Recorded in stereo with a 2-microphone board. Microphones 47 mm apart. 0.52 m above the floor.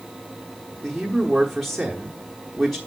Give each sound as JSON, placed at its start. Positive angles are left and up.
{"t": 0.8, "sound": "a man speaking", "side_deg": 0, "distance_m": 1.1}